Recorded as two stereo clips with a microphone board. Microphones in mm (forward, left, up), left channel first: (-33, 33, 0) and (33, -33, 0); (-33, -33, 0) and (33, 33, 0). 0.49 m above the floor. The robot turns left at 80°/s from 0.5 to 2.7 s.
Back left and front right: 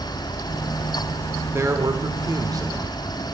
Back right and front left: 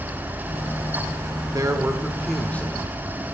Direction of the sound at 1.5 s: 15° left.